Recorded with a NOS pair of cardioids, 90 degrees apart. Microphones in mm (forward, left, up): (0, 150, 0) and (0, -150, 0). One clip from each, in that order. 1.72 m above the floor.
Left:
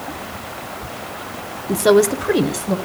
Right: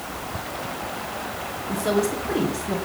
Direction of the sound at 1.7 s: 60° left.